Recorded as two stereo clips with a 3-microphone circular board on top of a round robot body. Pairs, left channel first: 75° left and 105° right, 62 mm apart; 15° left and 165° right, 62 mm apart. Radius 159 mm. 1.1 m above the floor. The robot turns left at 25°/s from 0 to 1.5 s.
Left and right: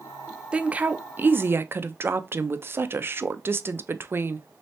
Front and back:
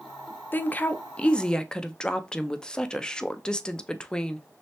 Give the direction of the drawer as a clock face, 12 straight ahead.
No drawer in this recording.